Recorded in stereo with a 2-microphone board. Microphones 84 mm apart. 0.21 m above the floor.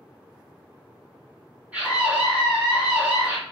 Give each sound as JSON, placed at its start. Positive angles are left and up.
{"t": 1.7, "sound": "a scream", "side_deg": -15, "distance_m": 1.9}